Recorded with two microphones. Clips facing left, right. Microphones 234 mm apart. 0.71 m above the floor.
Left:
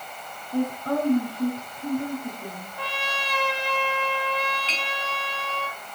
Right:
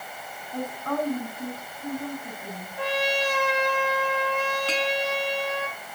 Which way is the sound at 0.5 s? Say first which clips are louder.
Left 5 dB; 30° left (ahead or behind).